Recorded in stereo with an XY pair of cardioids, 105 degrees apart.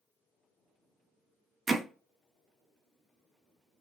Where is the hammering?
35° right, 0.5 m.